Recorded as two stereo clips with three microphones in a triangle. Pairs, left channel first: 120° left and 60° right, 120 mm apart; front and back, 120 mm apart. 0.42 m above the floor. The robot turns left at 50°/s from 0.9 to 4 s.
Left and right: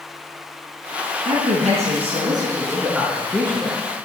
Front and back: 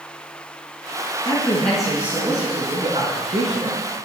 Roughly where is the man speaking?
Ahead right.